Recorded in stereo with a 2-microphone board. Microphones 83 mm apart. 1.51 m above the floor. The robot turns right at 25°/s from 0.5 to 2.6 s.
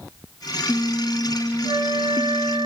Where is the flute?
75° right (ahead or behind), 0.9 m; by 2.7 s 60° right (ahead or behind), 0.9 m.